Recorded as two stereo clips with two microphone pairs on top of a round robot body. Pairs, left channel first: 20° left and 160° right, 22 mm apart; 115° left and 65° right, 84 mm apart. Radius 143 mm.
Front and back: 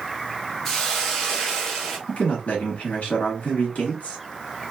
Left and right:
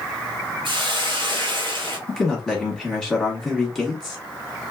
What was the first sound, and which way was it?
A hiss, 45° right.